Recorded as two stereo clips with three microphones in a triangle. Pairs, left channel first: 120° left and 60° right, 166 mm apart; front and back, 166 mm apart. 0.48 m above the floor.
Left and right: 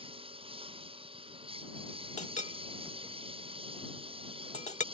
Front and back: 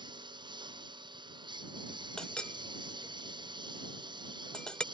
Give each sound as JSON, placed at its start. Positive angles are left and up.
{"t": 0.0, "sound": "a lawn mower", "azimuth_deg": -115}
{"t": 2.2, "sound": "a clink", "azimuth_deg": 85}